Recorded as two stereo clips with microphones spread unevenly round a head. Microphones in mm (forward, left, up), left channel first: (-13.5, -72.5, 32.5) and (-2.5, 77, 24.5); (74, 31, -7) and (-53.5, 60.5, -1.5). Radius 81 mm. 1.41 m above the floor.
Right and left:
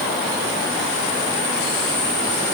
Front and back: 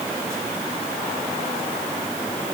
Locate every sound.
Only background noise.